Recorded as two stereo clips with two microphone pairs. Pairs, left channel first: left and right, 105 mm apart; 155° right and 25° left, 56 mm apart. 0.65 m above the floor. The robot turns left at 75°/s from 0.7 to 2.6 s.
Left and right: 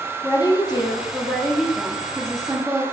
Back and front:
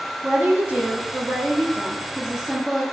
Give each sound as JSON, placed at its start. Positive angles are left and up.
{"t": 0.2, "sound": "a woman speaking", "azimuth_deg": 75, "distance_m": 1.0}